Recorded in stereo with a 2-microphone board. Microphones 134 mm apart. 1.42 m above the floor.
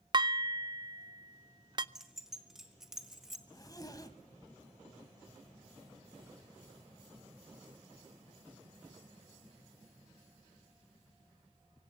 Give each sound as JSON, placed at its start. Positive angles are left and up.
{"t": 0.1, "sound": "dishes clattering", "side_deg": -35, "distance_m": 0.6}
{"t": 1.9, "sound": "keys jangling", "side_deg": -5, "distance_m": 1.7}
{"t": 3.5, "sound": "a zipper", "side_deg": 30, "distance_m": 1.5}